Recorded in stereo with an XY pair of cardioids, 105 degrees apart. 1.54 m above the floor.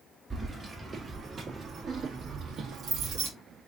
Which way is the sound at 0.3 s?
25° right.